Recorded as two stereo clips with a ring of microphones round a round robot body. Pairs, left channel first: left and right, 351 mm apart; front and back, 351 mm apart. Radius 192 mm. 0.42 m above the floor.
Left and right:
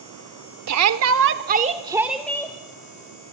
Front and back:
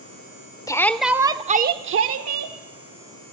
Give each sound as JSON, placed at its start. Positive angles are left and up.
{"t": 0.7, "sound": "a shout", "azimuth_deg": -75, "distance_m": 1.1}